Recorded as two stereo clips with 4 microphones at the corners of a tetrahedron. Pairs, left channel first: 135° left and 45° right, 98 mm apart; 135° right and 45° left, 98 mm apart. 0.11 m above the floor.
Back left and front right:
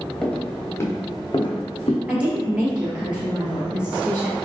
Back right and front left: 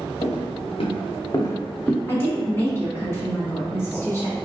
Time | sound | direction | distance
0.2 | footsteps | 140° right | 1.4 m
2.1 | a woman speaking | 105° right | 1.2 m